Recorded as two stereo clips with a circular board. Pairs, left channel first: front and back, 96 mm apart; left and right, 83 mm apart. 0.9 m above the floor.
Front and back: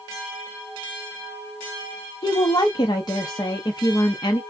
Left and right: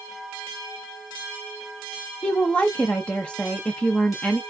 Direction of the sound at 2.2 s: 15° left.